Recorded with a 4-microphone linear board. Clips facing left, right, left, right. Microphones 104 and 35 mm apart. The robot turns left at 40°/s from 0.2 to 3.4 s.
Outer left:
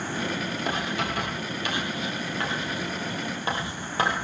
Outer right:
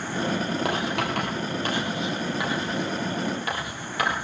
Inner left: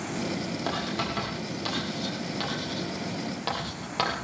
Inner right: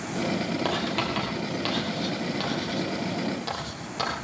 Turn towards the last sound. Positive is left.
turn(degrees=30)  # may be behind; listen again after turning